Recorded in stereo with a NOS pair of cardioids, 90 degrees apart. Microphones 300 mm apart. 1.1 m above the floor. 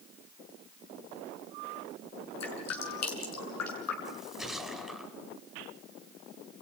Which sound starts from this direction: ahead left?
Dripping, at 2.4 s.